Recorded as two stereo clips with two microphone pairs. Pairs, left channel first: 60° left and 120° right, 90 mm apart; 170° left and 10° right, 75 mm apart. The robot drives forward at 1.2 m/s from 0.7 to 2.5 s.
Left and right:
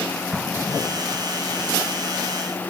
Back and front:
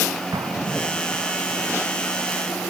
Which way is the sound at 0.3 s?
30° right.